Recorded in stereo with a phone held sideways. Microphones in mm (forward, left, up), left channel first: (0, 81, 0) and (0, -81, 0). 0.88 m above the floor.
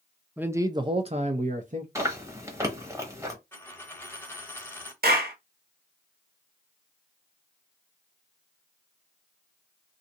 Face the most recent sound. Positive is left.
turn(degrees=-65)  # may be behind; listen again after turning